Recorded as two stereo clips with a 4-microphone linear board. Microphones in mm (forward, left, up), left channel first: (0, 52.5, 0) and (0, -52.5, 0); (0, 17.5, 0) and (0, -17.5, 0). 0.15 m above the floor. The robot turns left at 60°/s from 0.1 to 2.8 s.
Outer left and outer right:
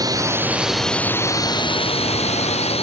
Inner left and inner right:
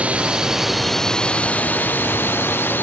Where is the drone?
35° right (ahead or behind); by 2.8 s 70° left (ahead or behind).